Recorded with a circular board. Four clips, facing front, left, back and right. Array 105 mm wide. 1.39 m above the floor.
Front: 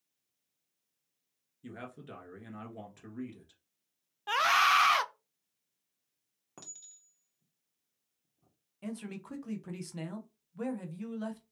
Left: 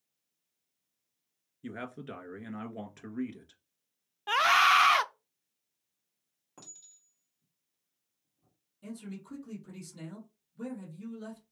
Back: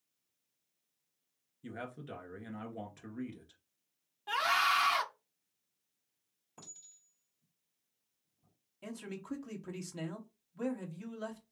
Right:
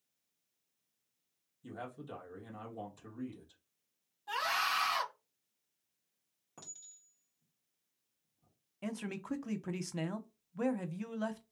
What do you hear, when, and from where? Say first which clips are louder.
1.6 s a man speaking: left 4 dB, back 1 dB; 90° left, 1.5 m
4.3 s a scream: left 11 dB, front 4 dB; 65° left, 0.6 m
6.6 s a clink: left 1 dB, front 3 dB; 5° left, 2 m
8.8 s a man speaking: right 3 dB, front 2 dB; 85° right, 1.0 m